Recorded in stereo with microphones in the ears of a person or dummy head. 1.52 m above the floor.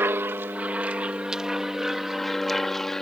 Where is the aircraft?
10° right (ahead or behind); by 3.0 s 5° left (ahead or behind).